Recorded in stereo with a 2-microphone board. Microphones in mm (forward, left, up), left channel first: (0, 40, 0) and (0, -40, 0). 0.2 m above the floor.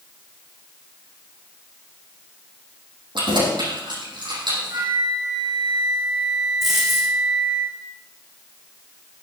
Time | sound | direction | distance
3.1 | keys jangling | 75° right (ahead or behind) | 5.5 m
4.7 | a flute | 65° right (ahead or behind) | 6 m
6.6 | a dropped coin | centre (ahead or behind) | 5 m